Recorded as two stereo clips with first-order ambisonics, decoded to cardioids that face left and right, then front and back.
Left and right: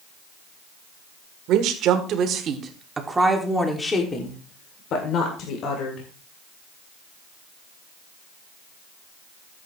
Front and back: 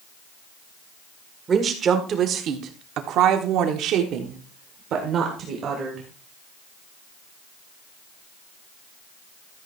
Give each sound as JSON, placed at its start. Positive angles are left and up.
{"t": 1.5, "sound": "a woman speaking", "azimuth_deg": -115, "distance_m": 1.7}